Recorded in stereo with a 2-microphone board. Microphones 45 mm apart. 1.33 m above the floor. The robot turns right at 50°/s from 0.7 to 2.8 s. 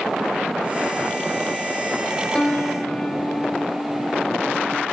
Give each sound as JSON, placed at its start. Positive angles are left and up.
{"t": 2.4, "sound": "a piano", "side_deg": 20, "distance_m": 0.7}